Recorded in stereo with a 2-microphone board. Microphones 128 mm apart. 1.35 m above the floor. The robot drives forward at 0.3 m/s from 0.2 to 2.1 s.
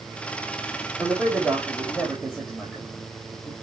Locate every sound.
1.0 s a man speaking: 10° right (ahead or behind), 3.5 m